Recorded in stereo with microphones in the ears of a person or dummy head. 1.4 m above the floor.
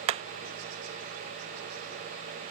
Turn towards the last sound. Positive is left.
turn(degrees=-25)  # may be behind; listen again after turning